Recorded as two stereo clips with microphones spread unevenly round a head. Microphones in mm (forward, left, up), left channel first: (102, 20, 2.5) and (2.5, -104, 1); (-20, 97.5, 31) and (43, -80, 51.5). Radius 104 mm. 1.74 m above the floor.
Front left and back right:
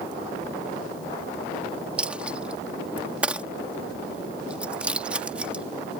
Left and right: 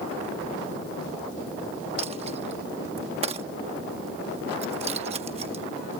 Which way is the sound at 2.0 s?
50° right.